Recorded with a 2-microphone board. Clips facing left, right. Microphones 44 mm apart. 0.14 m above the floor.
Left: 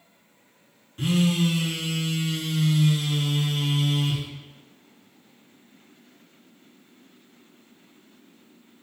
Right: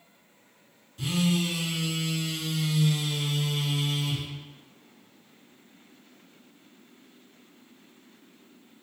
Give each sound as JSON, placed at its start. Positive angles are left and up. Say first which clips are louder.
{"t": 1.0, "sound": "a phone buzzing", "louder": "left 4 dB", "side_deg": 45, "distance_m": 0.6}